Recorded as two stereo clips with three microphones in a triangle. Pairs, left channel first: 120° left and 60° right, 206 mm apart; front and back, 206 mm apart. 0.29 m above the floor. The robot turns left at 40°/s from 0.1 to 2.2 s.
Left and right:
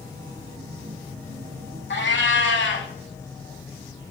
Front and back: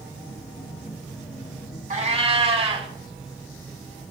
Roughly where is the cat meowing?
Behind left.